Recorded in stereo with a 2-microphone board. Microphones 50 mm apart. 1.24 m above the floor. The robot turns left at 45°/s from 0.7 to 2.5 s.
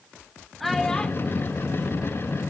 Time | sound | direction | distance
0.6 | a child speaking | 5° left (ahead or behind) | 1.1 m